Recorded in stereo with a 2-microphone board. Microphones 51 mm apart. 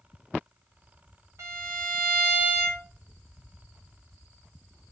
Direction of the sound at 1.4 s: 80° right.